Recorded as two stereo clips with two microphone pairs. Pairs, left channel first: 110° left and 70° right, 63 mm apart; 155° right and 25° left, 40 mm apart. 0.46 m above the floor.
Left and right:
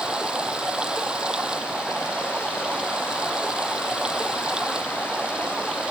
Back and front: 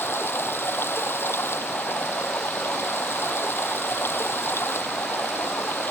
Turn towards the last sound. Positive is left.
turn(degrees=-150)